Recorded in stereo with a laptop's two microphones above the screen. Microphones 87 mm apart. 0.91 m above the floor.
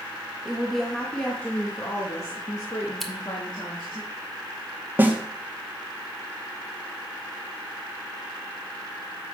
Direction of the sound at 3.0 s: 5° left (ahead or behind).